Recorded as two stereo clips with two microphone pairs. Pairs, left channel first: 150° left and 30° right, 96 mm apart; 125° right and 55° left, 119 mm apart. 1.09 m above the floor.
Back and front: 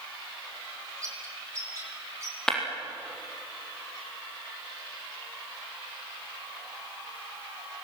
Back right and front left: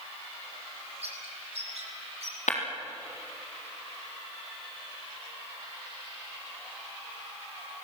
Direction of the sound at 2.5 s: 125° right.